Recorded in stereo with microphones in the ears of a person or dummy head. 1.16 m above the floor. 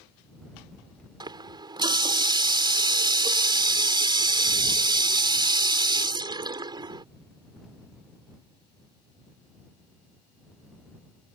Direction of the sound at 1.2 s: 25° right (ahead or behind).